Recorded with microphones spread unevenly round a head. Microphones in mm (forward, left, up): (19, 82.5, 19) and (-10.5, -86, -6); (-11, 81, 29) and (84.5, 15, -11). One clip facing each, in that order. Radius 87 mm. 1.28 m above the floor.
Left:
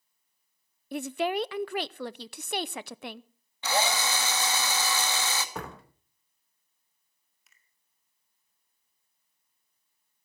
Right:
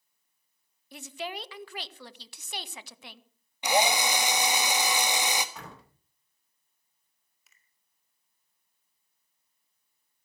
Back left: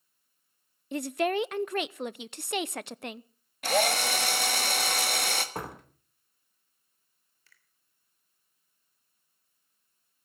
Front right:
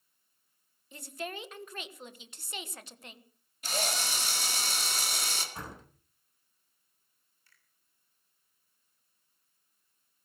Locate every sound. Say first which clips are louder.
0.9 s a woman speaking: left 10 dB, back left 13 dB; 120° left, 0.6 m
3.6 s a drill: right 3 dB, back left 9 dB; 175° right, 1.3 m
5.5 s a door slam: left 7 dB, back left 6 dB; 125° left, 2.5 m
7.5 s a finger snap: even, back left 3 dB; 170° left, 2.5 m